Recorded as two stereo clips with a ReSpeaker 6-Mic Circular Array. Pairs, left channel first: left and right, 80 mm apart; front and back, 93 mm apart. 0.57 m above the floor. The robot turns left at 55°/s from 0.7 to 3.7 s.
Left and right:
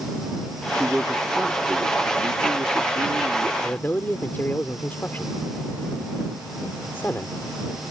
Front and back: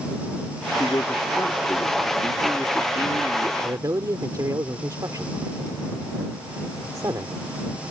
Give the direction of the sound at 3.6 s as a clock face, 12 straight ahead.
7 o'clock.